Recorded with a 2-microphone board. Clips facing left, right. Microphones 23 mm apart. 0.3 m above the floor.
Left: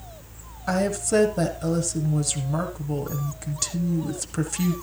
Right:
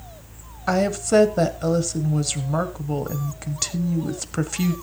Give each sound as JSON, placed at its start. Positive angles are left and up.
{"t": 0.7, "sound": "a woman speaking", "side_deg": -20, "distance_m": 1.3}